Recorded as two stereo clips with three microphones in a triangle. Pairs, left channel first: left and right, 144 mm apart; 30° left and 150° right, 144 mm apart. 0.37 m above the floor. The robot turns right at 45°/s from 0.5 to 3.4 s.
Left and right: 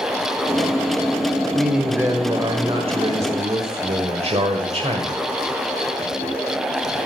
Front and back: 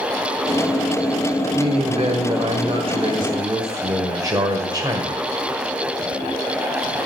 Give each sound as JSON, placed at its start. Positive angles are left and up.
{"t": 1.5, "sound": "a man speaking", "azimuth_deg": 180, "distance_m": 1.3}